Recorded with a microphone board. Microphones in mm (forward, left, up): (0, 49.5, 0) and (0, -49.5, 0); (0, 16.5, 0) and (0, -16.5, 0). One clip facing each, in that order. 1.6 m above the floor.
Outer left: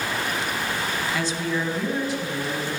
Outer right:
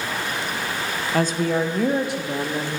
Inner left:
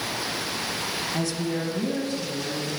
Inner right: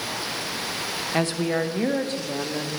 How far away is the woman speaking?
About 1.1 m.